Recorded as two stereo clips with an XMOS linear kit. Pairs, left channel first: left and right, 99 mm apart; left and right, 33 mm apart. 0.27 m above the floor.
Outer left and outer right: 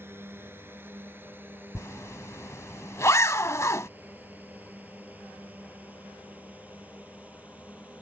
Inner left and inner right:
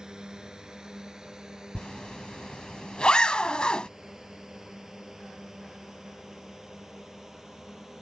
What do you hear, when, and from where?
0.0 s a drone: 20° right (ahead or behind); by 8.0 s 15° right (ahead or behind)
1.8 s a zipper: 30° left (ahead or behind)